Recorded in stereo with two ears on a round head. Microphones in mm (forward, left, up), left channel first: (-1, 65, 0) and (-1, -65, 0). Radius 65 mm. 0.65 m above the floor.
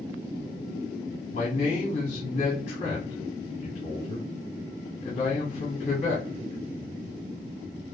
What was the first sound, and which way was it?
A man speaking, 50° left (ahead or behind).